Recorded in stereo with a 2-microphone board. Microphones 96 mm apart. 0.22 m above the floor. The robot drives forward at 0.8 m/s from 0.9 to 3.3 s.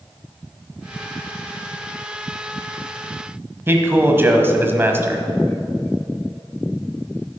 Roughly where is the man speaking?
Right.